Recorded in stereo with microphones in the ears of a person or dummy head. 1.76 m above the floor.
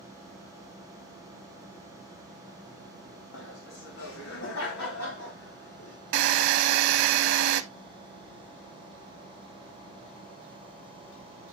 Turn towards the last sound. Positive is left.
turn(degrees=-55)  # may be behind; listen again after turning